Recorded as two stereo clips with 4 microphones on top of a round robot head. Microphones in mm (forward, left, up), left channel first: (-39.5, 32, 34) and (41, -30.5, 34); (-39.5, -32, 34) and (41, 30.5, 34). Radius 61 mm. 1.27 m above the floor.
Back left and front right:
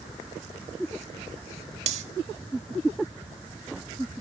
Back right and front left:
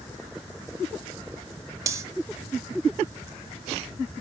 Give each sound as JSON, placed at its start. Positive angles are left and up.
{"t": 1.9, "sound": "cutlery clinking", "azimuth_deg": -20, "distance_m": 1.7}